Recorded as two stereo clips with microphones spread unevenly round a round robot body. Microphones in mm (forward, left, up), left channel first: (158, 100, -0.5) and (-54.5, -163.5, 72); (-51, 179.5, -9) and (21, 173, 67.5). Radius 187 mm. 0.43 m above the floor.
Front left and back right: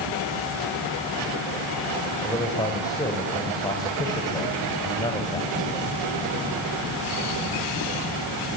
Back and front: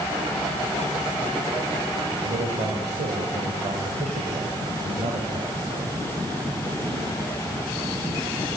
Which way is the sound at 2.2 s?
20° right.